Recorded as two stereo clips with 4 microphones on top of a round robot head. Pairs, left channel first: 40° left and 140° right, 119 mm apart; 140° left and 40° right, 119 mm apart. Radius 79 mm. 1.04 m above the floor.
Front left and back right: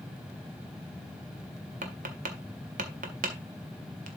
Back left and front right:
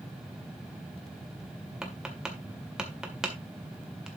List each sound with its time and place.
1.8 s tapping: 125° right, 1.8 m